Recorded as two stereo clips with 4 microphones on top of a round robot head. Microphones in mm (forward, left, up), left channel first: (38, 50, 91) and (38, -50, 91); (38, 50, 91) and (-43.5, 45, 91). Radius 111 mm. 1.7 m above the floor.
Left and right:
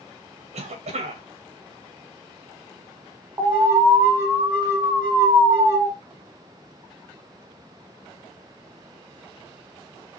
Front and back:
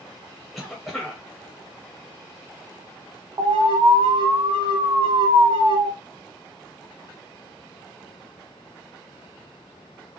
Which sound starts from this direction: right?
A cough, at 0.5 s.